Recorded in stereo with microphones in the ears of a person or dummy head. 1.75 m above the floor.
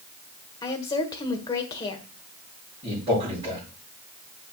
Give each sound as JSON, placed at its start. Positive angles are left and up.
{"t": 0.6, "sound": "a woman speaking", "side_deg": 20, "distance_m": 1.4}
{"t": 2.8, "sound": "a man speaking", "side_deg": -40, "distance_m": 6.0}